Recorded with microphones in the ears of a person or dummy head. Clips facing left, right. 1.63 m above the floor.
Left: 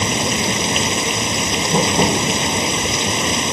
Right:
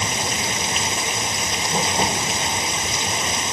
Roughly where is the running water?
Left.